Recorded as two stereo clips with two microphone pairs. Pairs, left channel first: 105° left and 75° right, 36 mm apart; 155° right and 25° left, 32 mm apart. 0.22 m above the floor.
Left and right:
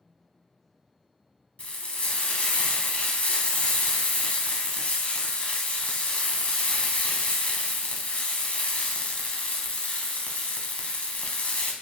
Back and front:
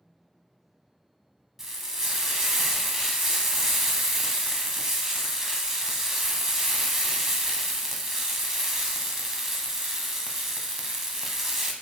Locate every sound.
1.6 s frying: 100° left, 0.7 m